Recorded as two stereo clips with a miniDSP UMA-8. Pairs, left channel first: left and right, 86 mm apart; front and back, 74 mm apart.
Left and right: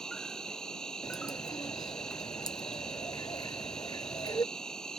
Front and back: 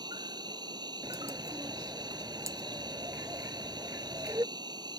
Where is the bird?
130° left.